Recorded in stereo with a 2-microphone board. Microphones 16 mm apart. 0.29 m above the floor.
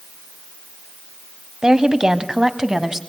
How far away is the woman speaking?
About 1.6 m.